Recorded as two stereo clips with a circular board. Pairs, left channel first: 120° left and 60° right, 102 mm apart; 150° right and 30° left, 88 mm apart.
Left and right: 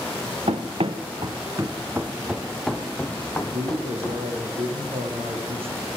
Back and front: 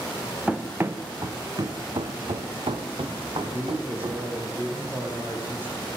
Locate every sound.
0.5 s running footsteps: 50° right, 2 m; by 4.3 s 55° left, 4 m
3.3 s a man speaking: 40° right, 8.5 m